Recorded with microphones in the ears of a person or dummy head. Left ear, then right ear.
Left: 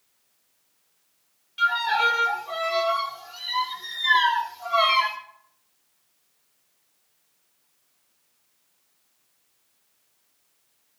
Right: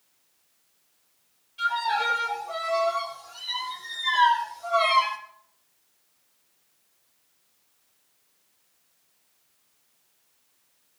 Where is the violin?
50° left (ahead or behind), 3.5 m.